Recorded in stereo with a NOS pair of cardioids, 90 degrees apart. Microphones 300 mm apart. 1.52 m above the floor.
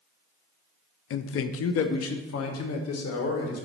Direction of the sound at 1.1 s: 45° left.